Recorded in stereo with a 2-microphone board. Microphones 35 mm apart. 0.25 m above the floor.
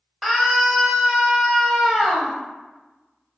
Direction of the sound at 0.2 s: Centre (ahead or behind).